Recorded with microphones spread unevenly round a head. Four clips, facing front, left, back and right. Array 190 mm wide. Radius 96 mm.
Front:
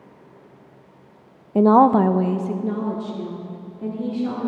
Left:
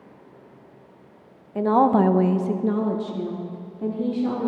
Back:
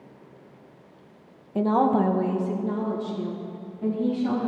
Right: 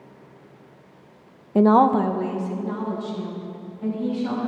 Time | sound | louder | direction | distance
1.6 | a woman speaking | right 2 dB, front 7 dB | 55° right | 0.7 m